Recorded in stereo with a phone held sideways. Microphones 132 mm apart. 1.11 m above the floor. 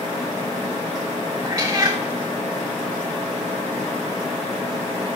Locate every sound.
1.4 s a cat meowing: 25° right (ahead or behind), 1.1 m